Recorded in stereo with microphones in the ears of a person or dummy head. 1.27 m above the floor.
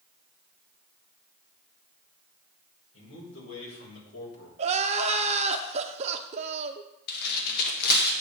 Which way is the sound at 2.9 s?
75° left (ahead or behind).